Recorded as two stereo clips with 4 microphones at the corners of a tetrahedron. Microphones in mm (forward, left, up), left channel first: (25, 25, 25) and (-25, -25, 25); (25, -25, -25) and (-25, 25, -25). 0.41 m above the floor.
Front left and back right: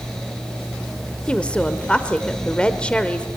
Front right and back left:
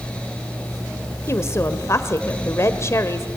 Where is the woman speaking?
25° right, 1.4 m.